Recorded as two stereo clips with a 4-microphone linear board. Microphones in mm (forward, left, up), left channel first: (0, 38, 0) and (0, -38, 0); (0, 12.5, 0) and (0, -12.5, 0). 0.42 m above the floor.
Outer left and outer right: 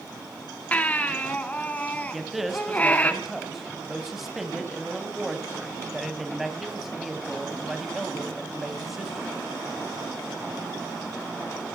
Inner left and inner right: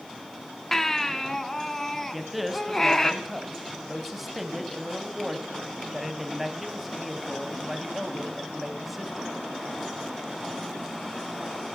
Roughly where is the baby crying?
Centre.